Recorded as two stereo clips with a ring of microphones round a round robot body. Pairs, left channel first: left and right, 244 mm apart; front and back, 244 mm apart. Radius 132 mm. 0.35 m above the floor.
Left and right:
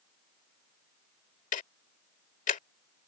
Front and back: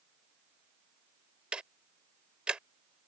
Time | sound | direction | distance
1.5 | ticking | 95° left | ?